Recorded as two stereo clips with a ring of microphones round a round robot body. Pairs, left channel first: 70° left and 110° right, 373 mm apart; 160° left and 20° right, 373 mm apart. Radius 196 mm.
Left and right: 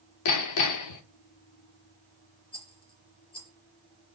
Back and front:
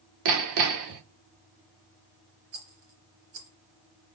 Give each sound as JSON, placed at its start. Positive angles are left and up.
{"t": 0.2, "sound": "hammering", "azimuth_deg": 20, "distance_m": 1.0}
{"t": 2.5, "sound": "a rattle", "azimuth_deg": -10, "distance_m": 3.5}